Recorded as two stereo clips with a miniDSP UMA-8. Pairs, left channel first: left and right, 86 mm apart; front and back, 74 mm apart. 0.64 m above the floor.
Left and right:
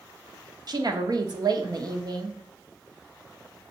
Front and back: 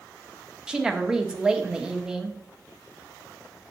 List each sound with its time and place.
0.7 s a woman speaking: 105° right, 1.0 m